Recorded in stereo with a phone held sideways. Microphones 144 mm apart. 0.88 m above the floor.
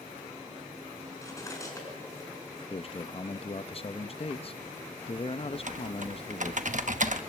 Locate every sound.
1.2 s cutlery clinking: 20° left (ahead or behind), 5 m
2.7 s a man speaking: 40° left (ahead or behind), 0.6 m
5.5 s typing on a keyboard: 60° right (ahead or behind), 1.1 m